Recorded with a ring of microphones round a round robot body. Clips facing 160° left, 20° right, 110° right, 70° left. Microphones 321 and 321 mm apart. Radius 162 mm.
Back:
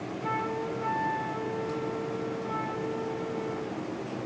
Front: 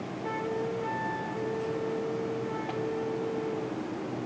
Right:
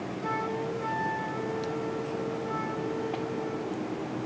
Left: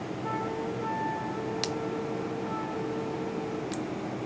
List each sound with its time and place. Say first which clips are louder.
0.2 s a flute: front 3 dB, right 1 dB; 140° right